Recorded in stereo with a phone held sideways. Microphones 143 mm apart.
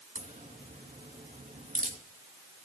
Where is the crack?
65° right (ahead or behind), 2.5 m.